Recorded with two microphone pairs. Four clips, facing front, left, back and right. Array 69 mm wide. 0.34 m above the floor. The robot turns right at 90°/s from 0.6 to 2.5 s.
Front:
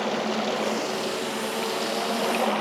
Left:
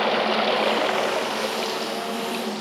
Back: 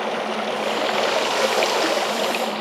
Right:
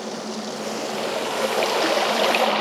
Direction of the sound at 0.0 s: 110° left.